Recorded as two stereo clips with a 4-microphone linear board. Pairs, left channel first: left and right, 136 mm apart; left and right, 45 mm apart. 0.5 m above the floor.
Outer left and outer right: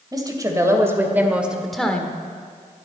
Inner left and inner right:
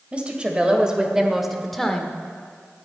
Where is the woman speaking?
30° right (ahead or behind), 2.5 m; by 2.1 s 10° left (ahead or behind), 1.4 m.